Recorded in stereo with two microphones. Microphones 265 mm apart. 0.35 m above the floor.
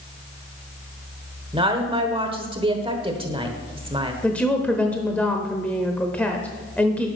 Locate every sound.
1.5 s a woman speaking: 20° right (ahead or behind), 1.1 m
4.2 s a woman speaking: 5° left (ahead or behind), 0.8 m